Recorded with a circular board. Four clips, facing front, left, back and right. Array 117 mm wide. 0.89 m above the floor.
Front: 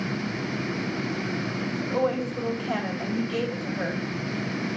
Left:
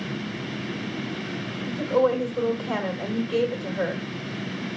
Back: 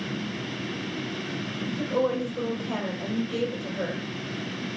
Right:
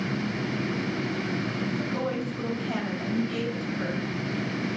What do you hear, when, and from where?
1.7 s a woman speaking: 80° left, 3.5 m